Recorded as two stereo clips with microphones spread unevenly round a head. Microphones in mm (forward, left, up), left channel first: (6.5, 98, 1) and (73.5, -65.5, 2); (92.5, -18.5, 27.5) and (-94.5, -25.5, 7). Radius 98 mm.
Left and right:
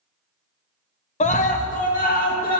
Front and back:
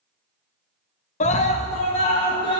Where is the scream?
60° left, 1.0 m; by 2.6 s 70° left, 2.5 m.